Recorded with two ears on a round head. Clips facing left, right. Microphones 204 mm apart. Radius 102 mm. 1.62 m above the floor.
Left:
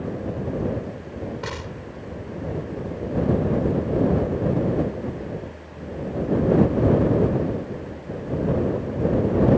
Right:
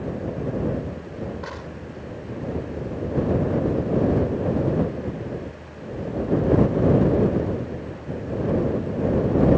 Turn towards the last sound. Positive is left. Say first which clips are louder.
# left 1 dB
turn(degrees=45)  # may be behind; listen again after turning